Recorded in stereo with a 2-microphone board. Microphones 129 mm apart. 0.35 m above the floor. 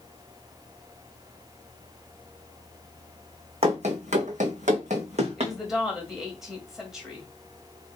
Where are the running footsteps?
55° right (ahead or behind), 1.0 m.